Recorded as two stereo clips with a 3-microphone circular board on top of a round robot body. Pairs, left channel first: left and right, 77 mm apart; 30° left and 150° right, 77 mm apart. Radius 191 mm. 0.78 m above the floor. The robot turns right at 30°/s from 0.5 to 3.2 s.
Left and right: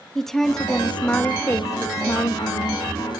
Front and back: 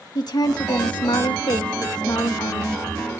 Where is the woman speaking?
5° left, 1.8 m; by 2.9 s 75° left, 1.8 m.